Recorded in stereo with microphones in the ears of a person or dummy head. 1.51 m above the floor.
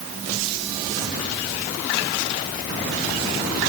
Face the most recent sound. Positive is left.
No sound to turn to.